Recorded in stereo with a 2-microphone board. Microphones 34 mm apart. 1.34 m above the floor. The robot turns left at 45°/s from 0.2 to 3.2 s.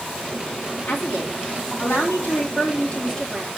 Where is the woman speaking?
115° left, 4 m; by 3.5 s 10° left, 4 m.